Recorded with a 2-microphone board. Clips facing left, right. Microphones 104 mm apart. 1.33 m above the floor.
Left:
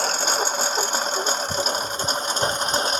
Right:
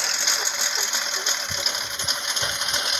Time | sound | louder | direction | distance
0.0 | a lawn mower | left 7 dB | 40° left (ahead or behind) | ?